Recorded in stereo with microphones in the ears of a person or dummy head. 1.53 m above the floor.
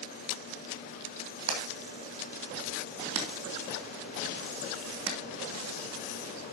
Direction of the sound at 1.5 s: 80° right.